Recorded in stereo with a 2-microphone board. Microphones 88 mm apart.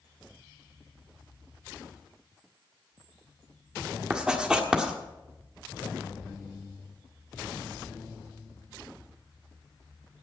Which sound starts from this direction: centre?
Writing, at 4.1 s.